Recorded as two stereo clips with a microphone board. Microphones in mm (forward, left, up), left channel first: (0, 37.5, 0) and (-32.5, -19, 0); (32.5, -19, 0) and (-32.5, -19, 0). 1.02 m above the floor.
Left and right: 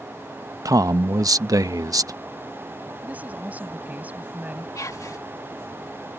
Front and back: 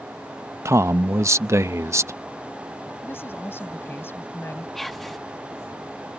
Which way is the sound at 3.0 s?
55° right.